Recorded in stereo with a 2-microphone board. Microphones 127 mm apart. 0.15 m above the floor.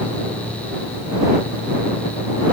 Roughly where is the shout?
I don't hear a shout.